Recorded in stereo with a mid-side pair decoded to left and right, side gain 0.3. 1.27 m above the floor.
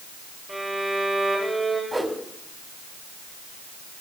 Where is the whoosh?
25° right, 3 m.